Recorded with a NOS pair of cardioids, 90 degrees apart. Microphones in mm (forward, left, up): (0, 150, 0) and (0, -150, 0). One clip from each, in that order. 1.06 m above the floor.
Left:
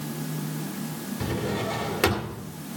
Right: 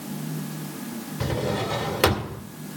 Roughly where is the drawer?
Ahead.